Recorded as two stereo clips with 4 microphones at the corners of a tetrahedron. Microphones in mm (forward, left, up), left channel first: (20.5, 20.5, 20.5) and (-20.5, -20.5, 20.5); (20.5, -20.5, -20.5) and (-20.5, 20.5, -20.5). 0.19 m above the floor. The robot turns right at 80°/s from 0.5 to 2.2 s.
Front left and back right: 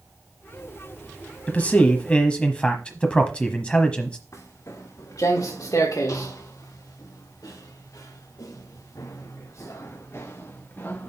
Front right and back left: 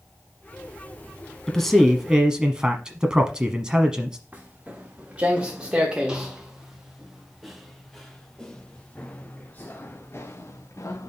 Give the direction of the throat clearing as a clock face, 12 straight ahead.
No throat clearing in this recording.